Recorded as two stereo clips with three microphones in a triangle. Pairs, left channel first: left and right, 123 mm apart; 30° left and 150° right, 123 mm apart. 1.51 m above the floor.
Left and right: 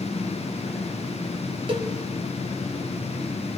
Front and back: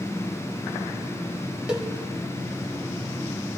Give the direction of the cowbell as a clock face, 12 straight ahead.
2 o'clock.